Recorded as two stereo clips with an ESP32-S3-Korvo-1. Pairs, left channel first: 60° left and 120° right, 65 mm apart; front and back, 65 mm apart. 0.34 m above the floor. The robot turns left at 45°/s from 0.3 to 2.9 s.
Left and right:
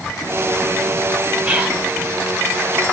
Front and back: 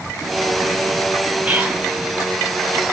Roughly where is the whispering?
Behind right.